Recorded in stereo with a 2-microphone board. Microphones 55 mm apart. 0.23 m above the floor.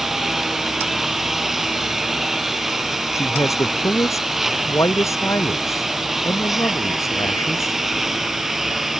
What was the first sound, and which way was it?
A lawn mower, 5° right (ahead or behind).